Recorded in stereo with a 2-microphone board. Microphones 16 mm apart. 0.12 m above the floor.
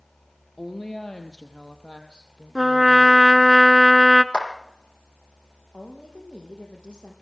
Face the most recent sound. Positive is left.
turn(degrees=75)  # may be behind; listen again after turning